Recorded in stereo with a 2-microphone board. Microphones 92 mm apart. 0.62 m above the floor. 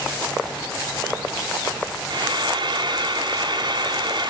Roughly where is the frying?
Right.